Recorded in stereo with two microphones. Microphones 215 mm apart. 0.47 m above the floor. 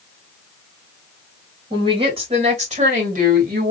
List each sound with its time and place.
1.7 s a woman speaking: 20° right (ahead or behind), 2 m; by 3.7 s 45° right (ahead or behind), 2.0 m